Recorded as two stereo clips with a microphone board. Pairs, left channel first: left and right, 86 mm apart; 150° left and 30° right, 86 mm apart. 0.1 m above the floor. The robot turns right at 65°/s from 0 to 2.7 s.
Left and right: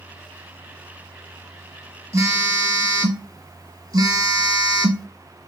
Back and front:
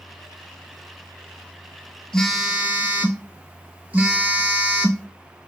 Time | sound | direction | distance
2.1 | a phone buzzing | 135° right | 0.7 m